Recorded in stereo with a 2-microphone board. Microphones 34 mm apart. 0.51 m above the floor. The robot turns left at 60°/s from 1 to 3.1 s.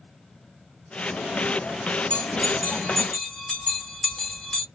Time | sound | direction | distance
2.1 | a bell | 45° left (ahead or behind) | 1.7 m